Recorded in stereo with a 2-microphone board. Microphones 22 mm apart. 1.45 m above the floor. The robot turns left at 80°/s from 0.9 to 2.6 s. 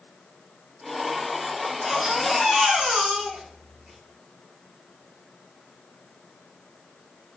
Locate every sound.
1.6 s a baby crying: 20° left, 4.5 m; by 4.0 s 60° right, 4.5 m